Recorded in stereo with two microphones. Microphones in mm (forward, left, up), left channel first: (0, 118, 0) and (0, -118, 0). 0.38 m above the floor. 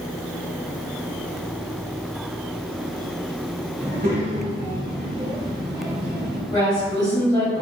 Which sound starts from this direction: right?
A child speaking, at 3.8 s.